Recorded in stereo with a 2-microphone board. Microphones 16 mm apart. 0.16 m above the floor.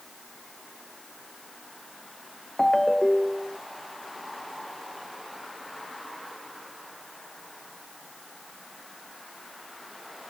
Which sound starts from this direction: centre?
A ringtone, at 2.6 s.